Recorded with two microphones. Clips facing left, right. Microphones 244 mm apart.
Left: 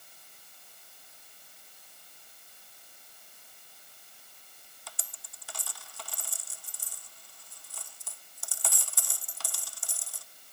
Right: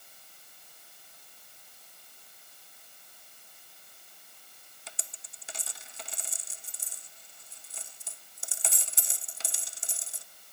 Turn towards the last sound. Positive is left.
turn(degrees=-20)  # may be behind; listen again after turning